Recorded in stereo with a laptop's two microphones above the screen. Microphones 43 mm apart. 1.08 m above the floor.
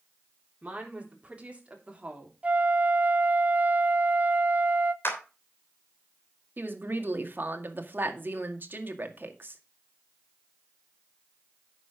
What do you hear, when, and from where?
0.6 s a woman speaking: 30° right (ahead or behind), 4 m
2.4 s a flute: 35° right (ahead or behind), 0.7 m
5.0 s a clap: 60° left (ahead or behind), 3.5 m
6.6 s a woman speaking: 50° right (ahead or behind), 1.9 m